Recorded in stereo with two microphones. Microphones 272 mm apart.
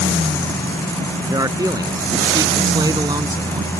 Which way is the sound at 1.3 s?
10° right (ahead or behind).